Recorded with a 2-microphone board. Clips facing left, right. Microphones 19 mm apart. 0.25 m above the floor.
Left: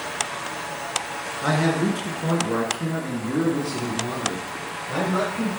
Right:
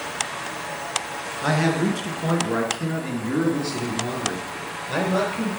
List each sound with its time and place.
1.4 s a man speaking: 5° right (ahead or behind), 2.5 m; by 5.5 s 50° right (ahead or behind), 4 m